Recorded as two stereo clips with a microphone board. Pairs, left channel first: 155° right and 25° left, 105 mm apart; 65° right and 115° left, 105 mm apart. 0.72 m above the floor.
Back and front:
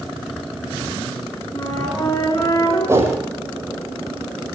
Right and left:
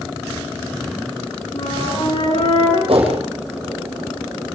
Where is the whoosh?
85° left, 7 m.